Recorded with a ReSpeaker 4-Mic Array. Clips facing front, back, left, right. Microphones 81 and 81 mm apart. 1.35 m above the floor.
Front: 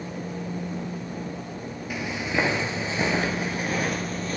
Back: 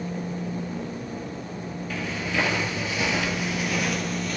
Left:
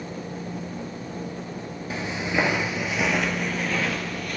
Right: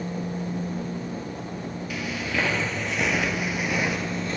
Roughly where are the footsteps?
Ahead left.